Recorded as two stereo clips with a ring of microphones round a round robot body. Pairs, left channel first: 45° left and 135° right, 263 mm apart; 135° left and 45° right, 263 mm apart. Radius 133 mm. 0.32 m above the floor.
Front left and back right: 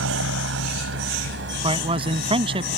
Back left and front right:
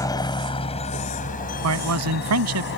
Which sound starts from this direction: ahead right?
A man speaking, at 1.6 s.